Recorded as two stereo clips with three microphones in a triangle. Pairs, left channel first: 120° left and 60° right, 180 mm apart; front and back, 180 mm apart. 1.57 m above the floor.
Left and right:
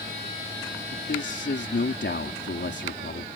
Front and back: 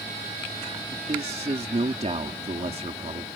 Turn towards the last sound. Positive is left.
turn(degrees=125)